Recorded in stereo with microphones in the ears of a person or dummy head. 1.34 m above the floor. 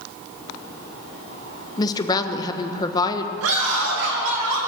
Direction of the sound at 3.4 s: 85° right.